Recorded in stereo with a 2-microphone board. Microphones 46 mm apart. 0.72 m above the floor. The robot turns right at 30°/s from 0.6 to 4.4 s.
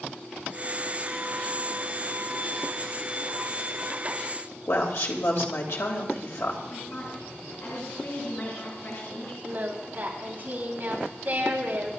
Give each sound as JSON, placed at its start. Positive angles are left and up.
{"t": 4.7, "sound": "a woman speaking", "side_deg": 75, "distance_m": 3.0}
{"t": 6.7, "sound": "a woman speaking", "side_deg": 60, "distance_m": 8.0}
{"t": 9.4, "sound": "singing", "side_deg": -40, "distance_m": 4.0}